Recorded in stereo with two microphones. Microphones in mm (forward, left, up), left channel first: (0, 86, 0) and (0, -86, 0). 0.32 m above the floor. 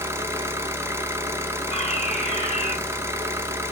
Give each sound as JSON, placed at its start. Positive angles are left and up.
{"t": 0.0, "sound": "an engine running", "side_deg": -15, "distance_m": 1.3}
{"t": 1.7, "sound": "a fire alarm", "side_deg": 35, "distance_m": 3.5}